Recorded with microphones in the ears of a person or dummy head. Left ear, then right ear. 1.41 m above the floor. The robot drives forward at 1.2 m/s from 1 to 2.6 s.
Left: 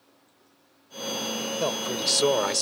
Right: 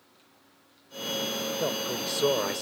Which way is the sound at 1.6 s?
35° left (ahead or behind).